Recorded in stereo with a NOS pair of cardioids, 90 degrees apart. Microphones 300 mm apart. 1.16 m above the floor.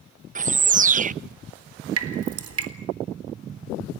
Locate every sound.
0.3 s a bird: 25° right, 0.6 m
2.0 s dripping: 50° right, 3.5 m